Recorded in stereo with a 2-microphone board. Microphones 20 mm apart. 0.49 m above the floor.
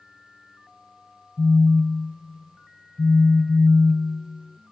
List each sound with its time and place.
1.4 s a phone buzzing: 45° left (ahead or behind), 0.5 m